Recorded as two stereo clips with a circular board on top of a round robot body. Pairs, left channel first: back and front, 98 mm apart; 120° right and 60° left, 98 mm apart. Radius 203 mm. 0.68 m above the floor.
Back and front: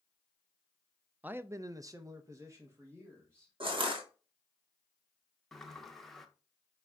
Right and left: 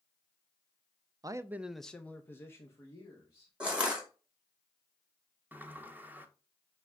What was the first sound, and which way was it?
A man speaking, 65° left.